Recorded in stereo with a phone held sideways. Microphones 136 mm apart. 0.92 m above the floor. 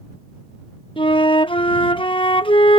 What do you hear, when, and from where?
1.0 s a flute: 35° left (ahead or behind)